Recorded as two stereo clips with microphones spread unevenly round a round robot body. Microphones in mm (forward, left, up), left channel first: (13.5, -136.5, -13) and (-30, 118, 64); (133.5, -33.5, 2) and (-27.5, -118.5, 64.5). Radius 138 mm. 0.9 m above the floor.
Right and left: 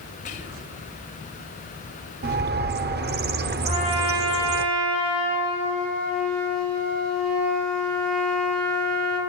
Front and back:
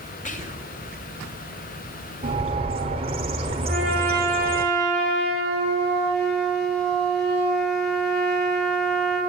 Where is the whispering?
20° right, 3.5 m.